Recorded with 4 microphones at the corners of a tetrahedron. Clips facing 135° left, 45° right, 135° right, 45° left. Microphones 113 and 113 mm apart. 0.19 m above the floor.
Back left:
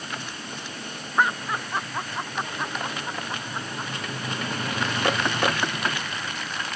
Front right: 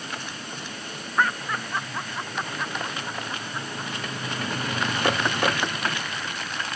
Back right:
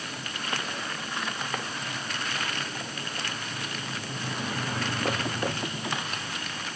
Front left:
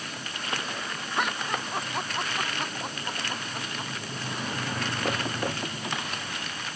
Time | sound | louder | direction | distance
1.2 | laughter | back left 1 dB, front left 6 dB | 60° left | ?